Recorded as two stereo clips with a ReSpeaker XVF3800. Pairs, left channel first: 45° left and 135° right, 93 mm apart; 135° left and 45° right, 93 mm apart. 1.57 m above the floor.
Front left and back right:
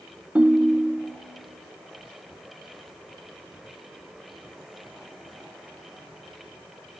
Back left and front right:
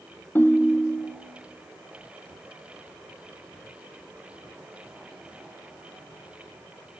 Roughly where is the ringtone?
Behind.